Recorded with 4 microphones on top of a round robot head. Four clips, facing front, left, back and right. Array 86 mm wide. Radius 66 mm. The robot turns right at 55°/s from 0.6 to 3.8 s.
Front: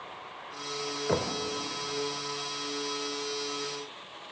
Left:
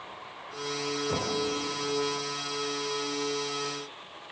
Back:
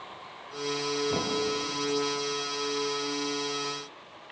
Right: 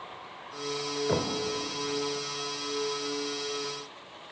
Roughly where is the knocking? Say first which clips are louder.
Right 4 dB, even; ahead right.